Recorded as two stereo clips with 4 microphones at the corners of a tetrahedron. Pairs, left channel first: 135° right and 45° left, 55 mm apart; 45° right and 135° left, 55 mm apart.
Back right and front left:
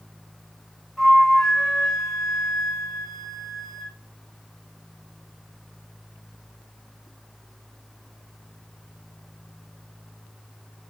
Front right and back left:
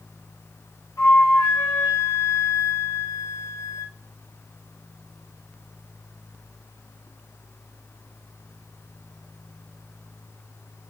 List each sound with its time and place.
1.0 s a flute: 40° right, 1.6 m